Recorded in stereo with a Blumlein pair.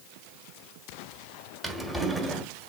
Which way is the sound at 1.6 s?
5° right.